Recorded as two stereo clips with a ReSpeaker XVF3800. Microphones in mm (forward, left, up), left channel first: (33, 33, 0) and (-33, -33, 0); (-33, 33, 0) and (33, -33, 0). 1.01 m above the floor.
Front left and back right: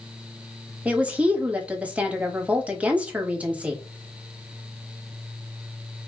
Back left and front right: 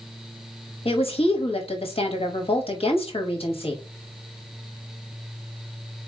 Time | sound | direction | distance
0.8 | a woman speaking | 150° left | 1.1 m